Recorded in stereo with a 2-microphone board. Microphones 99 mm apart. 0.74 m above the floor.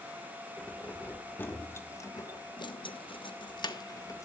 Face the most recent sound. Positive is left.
turn(degrees=35)  # may be behind; listen again after turning